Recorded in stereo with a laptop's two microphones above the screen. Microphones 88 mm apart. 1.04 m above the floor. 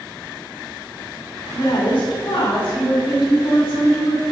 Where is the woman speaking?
70° left (ahead or behind), 2.0 m.